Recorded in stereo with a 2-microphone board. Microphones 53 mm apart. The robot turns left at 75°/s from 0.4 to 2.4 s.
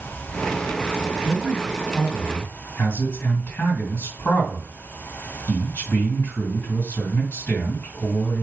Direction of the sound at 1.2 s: 135° right.